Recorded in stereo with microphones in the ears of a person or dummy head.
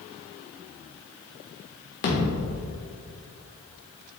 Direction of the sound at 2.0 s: 60° left (ahead or behind).